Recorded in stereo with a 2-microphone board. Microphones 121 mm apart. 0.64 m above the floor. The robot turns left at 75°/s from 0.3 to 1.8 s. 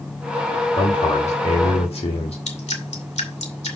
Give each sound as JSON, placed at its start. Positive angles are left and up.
{"t": 0.8, "sound": "a man speaking", "azimuth_deg": 140, "distance_m": 2.0}
{"t": 2.5, "sound": "dripping", "side_deg": 65, "distance_m": 2.5}